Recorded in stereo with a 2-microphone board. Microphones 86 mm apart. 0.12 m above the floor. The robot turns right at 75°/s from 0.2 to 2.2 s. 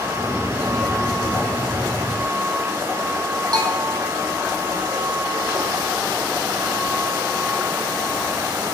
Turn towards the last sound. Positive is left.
turn(degrees=-45)  # may be behind; listen again after turning